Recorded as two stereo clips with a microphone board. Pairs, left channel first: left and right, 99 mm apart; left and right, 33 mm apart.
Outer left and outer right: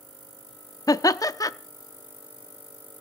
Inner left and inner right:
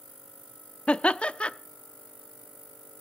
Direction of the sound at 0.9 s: 35° left (ahead or behind).